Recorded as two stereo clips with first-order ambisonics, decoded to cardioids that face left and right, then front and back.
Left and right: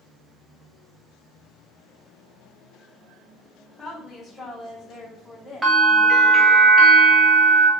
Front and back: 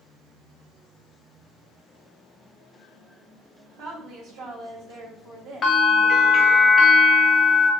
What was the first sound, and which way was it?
A woman speaking, 175° right.